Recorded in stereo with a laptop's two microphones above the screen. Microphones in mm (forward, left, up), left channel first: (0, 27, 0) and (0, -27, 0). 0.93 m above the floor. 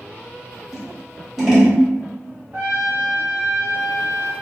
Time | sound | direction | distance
0.7 | scissors | 10° right (ahead or behind) | 1.2 m
2.5 | a trumpet | 45° right (ahead or behind) | 1.3 m